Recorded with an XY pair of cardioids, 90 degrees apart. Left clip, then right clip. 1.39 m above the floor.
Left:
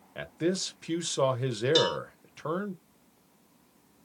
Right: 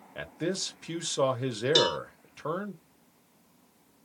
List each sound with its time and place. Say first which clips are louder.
0.1 s a man speaking: left 2 dB; 5° left, 1.2 m
1.8 s a cowbell: right 1 dB; 20° right, 0.8 m